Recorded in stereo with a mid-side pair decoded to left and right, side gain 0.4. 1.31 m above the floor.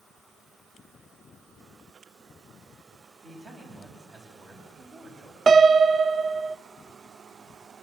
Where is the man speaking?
60° right, 10 m.